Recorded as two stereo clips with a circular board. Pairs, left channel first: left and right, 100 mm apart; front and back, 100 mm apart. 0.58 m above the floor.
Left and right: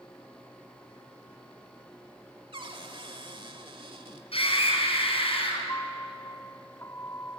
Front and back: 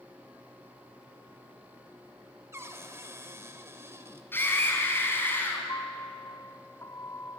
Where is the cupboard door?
120° right, 1.5 m.